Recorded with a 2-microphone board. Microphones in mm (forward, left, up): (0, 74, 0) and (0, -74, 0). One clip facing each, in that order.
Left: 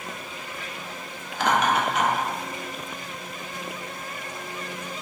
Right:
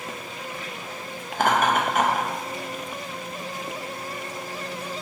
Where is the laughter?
50° right (ahead or behind), 0.6 m.